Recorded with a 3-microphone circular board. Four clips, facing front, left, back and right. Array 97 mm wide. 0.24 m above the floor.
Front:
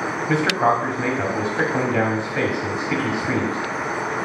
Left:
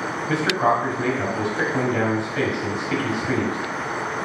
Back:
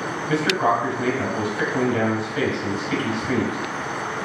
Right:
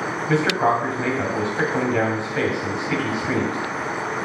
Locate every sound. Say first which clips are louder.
0.3 s a man speaking: right 1 dB, front 1 dB; 15° right, 1.3 m